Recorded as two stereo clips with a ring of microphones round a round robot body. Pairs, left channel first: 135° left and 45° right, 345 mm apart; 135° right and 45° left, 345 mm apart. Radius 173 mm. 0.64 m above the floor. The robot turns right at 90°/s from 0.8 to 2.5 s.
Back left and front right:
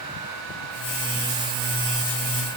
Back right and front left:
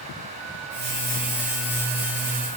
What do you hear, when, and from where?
Only background noise.